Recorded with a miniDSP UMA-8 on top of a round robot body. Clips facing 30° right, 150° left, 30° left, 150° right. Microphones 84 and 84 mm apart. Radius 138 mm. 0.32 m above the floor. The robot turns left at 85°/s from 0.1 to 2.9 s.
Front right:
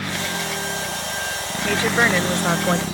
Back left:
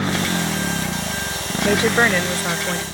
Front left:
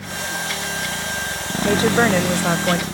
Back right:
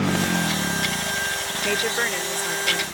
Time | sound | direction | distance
0.0 | a motorcycle | 150° right | ?
1.6 | a woman speaking | 100° left | ?